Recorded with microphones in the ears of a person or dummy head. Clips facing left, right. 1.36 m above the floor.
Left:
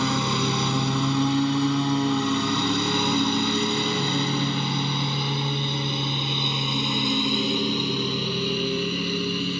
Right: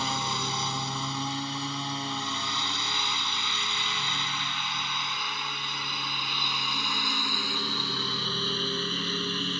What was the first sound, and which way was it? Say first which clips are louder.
A lawn mower: left 9 dB; 70° left (ahead or behind).